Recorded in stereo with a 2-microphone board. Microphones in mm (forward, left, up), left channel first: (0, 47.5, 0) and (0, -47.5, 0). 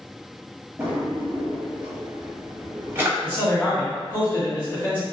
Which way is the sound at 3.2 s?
20° left (ahead or behind).